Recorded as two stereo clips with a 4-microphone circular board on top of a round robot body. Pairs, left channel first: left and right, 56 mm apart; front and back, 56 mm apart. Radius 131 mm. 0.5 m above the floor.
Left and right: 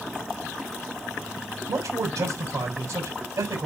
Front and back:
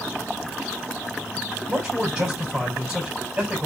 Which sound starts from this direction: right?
A man speaking, at 1.7 s.